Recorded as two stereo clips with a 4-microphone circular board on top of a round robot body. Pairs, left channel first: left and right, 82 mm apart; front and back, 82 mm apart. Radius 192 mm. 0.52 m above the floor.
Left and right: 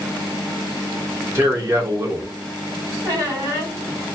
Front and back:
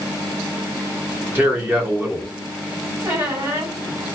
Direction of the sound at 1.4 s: 130° right.